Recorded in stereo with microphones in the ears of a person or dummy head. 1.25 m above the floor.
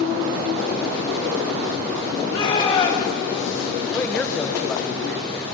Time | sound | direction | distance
2.3 | a shout | 30° left (ahead or behind) | 2.5 m
3.9 | a man speaking | 10° left (ahead or behind) | 1.1 m